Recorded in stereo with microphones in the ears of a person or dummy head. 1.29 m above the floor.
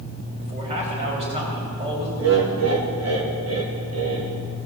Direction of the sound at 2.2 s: 80° right.